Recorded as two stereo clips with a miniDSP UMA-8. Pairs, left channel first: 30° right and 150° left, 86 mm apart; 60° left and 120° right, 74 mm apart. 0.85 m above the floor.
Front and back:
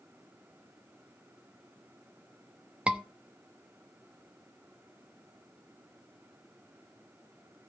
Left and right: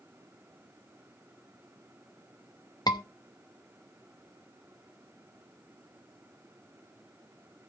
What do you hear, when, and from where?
2.9 s a scream: 75° left, 0.9 m